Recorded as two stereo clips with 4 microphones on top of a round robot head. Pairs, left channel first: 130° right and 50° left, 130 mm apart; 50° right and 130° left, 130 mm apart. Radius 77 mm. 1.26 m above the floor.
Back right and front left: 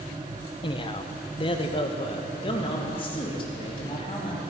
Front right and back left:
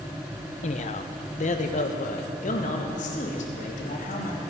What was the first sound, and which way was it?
A man speaking, 80° right.